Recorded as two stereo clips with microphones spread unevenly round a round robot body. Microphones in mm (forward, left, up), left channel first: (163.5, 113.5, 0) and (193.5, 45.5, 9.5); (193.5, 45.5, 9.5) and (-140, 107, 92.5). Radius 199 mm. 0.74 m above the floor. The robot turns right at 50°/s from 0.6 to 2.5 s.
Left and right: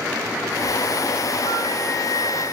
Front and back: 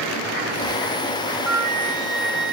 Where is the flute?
125° left, 1.3 m; by 2.5 s 175° left, 1.3 m.